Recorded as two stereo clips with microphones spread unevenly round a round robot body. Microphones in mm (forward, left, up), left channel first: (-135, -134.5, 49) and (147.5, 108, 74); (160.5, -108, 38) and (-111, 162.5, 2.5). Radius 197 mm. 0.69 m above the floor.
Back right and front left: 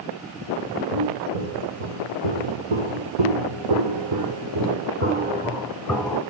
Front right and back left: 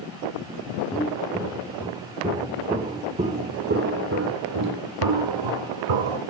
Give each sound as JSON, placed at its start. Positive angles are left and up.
{"t": 0.9, "sound": "footsteps", "azimuth_deg": 40, "distance_m": 3.0}